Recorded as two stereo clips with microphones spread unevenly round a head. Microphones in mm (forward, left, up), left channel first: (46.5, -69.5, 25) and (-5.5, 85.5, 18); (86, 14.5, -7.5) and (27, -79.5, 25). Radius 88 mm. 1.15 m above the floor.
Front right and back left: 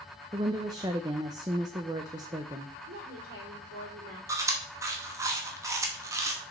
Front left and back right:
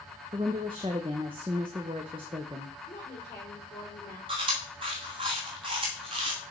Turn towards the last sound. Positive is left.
turn(degrees=180)